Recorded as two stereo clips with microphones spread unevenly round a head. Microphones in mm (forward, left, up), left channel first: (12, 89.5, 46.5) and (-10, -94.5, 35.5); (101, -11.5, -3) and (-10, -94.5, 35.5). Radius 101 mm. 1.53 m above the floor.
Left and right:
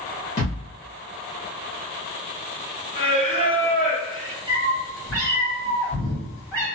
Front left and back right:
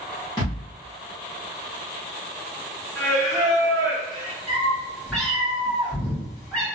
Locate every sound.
0.4 s a thud: 115° left, 1.3 m
3.0 s singing: 125° left, 1.7 m
4.5 s a cat meowing: 145° left, 1.6 m